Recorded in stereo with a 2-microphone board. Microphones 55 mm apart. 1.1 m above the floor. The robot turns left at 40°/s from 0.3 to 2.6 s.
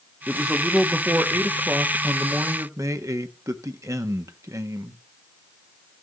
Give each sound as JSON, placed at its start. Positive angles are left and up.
{"t": 0.3, "sound": "a man speaking", "azimuth_deg": -10, "distance_m": 1.3}